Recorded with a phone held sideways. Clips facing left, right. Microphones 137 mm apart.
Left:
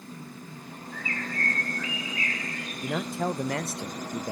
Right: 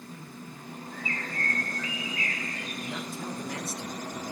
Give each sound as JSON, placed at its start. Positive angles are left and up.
{"t": 0.9, "sound": "a bird", "side_deg": -40, "distance_m": 3.5}
{"t": 2.8, "sound": "a man speaking", "side_deg": 70, "distance_m": 0.5}